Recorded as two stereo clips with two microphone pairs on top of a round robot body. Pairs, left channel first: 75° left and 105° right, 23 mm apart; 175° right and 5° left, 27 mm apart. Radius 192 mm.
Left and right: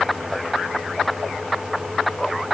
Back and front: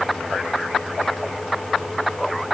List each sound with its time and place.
Only background noise.